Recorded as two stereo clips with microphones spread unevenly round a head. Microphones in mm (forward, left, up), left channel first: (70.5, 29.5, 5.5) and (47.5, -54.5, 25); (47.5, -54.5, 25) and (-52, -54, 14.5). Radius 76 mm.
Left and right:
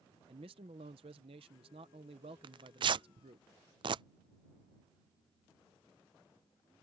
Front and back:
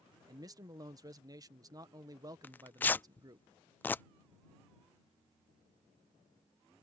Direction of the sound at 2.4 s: 75° right.